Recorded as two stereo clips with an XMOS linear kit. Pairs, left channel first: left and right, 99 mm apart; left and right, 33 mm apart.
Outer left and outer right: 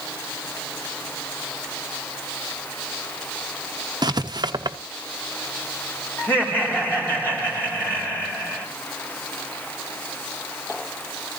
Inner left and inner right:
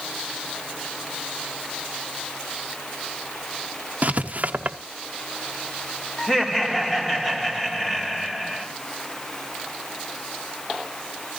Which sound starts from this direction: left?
Laughter, at 6.2 s.